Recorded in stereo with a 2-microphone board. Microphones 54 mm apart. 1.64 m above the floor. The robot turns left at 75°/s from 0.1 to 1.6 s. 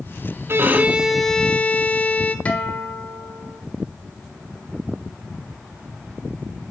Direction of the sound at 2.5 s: 25° left (ahead or behind).